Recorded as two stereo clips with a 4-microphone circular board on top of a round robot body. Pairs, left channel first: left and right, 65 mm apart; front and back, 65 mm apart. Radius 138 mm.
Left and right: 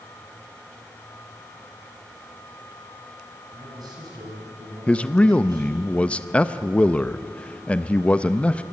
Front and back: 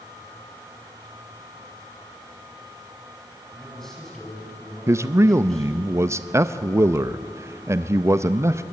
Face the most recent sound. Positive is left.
turn(degrees=155)